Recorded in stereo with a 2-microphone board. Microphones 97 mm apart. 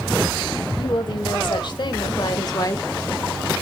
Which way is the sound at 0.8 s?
60° left (ahead or behind).